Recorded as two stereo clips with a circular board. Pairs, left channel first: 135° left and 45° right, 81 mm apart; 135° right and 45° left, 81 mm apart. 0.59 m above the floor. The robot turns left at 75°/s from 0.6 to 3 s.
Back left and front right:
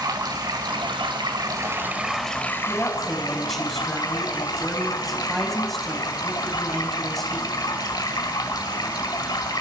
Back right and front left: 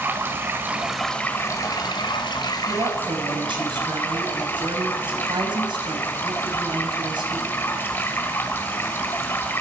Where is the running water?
15° right, 2 m; by 9.6 s 165° left, 2 m.